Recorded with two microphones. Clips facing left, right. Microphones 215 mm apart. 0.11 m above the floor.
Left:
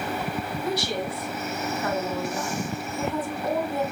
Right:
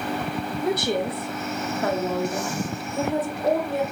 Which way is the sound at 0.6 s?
55° right (ahead or behind).